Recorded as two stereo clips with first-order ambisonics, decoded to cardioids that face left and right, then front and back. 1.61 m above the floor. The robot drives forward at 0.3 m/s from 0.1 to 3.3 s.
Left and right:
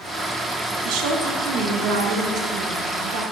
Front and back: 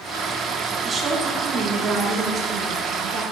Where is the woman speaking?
105° right, 1.5 m; by 3.2 s 125° right, 1.8 m.